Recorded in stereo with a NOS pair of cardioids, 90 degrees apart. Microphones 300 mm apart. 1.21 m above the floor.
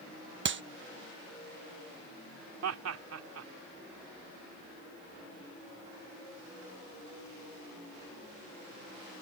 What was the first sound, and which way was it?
A clap, 40° right.